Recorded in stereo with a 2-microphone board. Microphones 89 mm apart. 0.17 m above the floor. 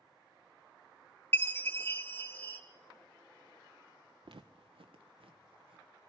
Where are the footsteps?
70° right (ahead or behind), 0.8 m; by 5.8 s 80° right, 2 m.